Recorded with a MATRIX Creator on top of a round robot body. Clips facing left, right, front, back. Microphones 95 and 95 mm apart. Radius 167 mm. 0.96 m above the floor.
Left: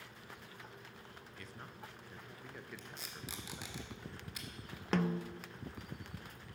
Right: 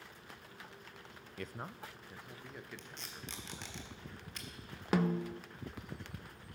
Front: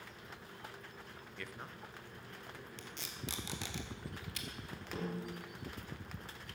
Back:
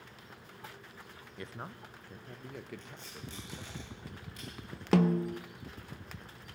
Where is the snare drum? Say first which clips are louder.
Right 2 dB, back 15 dB; 170° right, 0.5 m.